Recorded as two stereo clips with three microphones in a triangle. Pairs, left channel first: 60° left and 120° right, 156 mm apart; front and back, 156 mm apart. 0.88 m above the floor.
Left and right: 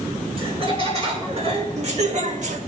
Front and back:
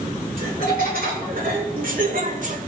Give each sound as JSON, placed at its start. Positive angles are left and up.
{"t": 0.4, "sound": "laughter", "azimuth_deg": -170, "distance_m": 3.0}